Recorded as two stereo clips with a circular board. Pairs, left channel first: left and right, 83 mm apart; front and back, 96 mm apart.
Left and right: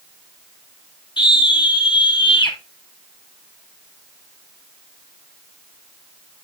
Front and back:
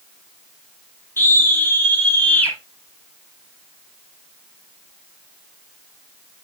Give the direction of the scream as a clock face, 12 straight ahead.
10 o'clock.